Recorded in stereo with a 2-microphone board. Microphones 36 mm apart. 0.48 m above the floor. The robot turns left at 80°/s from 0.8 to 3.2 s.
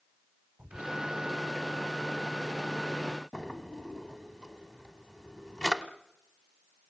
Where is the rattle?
No rattle in this recording.